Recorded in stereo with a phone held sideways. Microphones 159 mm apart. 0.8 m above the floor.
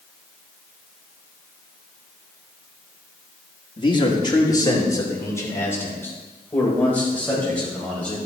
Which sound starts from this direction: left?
A man speaking, at 3.8 s.